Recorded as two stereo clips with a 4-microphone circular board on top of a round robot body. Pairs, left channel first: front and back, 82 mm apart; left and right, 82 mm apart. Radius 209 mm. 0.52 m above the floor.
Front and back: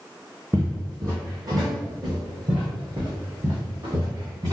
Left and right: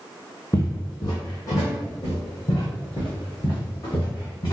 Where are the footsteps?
130° left, 0.6 m; by 4.5 s 140° left, 3 m.